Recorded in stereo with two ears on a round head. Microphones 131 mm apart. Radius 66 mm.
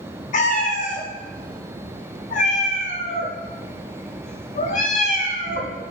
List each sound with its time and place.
0.3 s a cat meowing: 50° left (ahead or behind), 1.3 m